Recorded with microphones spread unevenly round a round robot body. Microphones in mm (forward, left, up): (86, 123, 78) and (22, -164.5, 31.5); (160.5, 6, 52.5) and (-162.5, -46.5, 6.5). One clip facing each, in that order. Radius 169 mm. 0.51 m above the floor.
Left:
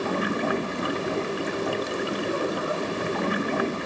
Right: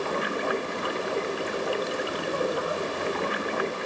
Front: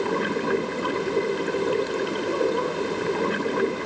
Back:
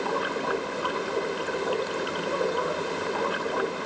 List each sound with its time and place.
0.0 s running water: 75° left